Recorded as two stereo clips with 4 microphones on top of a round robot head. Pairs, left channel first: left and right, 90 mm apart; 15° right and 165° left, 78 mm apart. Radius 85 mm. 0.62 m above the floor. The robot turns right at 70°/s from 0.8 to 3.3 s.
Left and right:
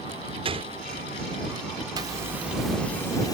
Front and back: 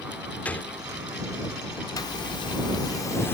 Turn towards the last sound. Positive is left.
turn(degrees=45)